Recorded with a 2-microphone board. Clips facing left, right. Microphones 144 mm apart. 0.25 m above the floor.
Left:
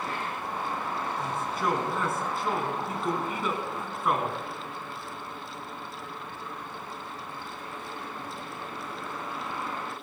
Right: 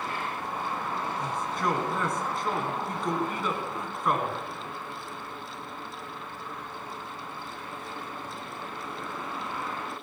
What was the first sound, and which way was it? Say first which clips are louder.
A man speaking: even; 5° left (ahead or behind).